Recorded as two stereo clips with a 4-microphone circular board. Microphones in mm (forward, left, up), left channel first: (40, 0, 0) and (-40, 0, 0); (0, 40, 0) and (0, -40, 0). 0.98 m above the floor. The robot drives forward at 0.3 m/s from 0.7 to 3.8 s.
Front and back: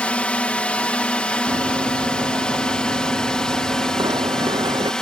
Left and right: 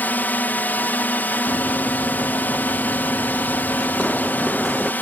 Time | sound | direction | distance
0.0 | a drone | 55° left | ?
1.5 | running footsteps | 150° left | ?